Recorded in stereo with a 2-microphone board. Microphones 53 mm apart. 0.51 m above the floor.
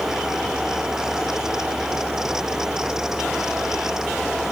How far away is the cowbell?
No cowbell in this recording.